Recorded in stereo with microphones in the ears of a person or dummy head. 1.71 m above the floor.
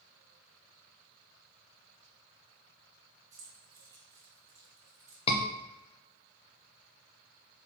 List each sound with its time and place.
3.3 s keys jangling: 15° right (ahead or behind), 1.8 m
5.3 s a scream: 35° left (ahead or behind), 0.8 m